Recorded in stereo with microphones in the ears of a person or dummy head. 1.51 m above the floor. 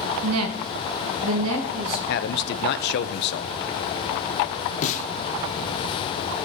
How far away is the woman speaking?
About 1.2 m.